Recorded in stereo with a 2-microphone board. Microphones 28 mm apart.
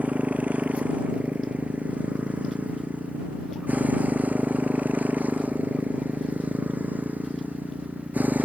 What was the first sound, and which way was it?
A motorcycle, 60° right (ahead or behind).